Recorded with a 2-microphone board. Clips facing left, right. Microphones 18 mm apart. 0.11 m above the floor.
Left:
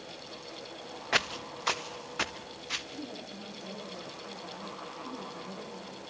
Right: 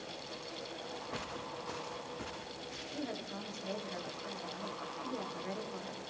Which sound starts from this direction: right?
A woman speaking, at 2.9 s.